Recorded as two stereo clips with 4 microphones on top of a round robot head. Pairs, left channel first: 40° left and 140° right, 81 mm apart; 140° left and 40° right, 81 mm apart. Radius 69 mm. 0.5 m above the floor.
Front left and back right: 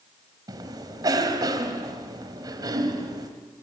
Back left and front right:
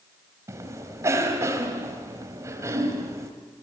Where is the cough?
100° right, 3 m.